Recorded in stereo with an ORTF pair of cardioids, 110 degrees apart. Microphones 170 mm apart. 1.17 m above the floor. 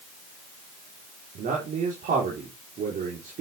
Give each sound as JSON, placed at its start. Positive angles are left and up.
{"t": 1.4, "sound": "a man speaking", "azimuth_deg": -55, "distance_m": 3.5}